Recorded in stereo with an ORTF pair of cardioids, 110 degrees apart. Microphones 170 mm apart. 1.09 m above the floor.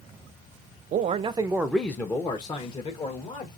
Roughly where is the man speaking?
Ahead right.